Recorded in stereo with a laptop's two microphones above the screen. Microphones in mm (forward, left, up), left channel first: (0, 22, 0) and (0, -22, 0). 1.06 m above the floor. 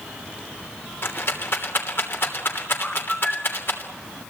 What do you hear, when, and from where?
1.0 s a rattle: 55° left (ahead or behind), 3 m
2.8 s a bird: 15° left (ahead or behind), 0.9 m